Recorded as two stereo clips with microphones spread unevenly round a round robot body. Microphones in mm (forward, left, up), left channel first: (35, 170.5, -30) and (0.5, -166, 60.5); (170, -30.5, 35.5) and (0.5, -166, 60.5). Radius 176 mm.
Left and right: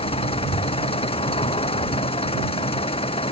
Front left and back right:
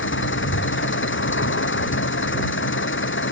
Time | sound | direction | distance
0.0 | an engine running | 10° left | ?